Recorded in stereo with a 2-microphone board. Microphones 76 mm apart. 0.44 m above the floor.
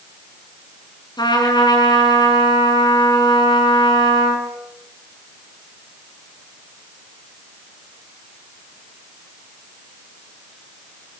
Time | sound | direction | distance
1.2 | a trumpet | 70° left (ahead or behind) | 5 m